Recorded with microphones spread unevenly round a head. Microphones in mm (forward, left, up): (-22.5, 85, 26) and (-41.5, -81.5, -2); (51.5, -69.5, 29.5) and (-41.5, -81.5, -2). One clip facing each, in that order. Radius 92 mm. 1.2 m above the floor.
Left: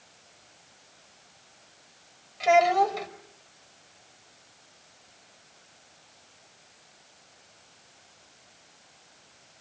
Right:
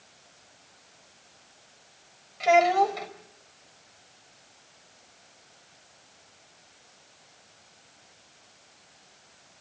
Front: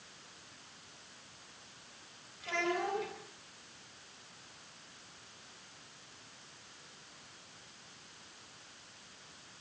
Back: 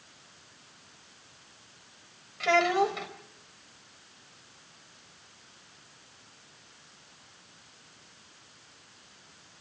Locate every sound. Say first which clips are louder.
2.4 s a child speaking: even, back 11 dB; 170° left, 4.5 m